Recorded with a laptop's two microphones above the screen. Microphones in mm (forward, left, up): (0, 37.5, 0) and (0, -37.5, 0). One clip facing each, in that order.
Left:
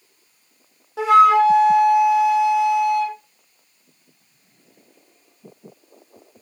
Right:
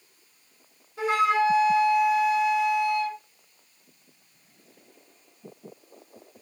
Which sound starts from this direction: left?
A flute, at 1.0 s.